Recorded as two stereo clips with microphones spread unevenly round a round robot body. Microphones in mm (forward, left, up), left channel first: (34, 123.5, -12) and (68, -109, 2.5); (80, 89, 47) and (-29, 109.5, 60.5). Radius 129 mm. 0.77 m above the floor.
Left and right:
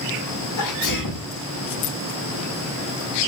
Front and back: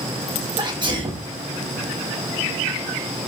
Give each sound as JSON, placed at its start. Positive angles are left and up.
{"t": 0.6, "sound": "a sneeze", "azimuth_deg": 120, "distance_m": 6.0}